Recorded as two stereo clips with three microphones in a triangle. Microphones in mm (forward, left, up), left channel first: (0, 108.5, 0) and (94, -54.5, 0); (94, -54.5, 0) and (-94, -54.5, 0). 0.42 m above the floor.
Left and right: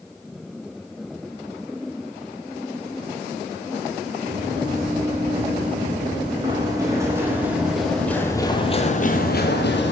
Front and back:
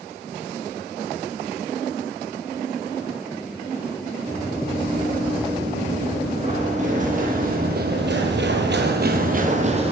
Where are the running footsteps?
115° right, 3 m; by 9.9 s 125° left, 1.1 m.